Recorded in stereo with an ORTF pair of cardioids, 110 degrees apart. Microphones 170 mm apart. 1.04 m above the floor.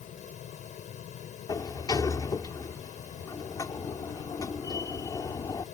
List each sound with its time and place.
0.0 s a fan: 50° left
1.5 s a sliding door: 25° left